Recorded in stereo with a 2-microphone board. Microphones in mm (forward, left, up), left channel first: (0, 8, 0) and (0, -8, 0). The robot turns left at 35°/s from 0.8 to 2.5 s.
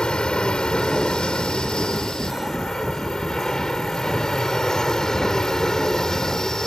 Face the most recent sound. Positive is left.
turn(degrees=35)  # may be behind; listen again after turning